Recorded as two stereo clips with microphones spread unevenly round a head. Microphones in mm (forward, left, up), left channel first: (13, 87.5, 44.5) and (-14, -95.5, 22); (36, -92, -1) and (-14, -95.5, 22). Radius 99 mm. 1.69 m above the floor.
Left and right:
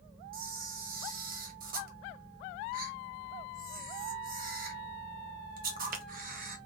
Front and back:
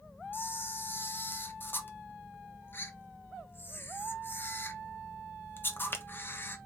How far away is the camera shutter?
About 0.9 m.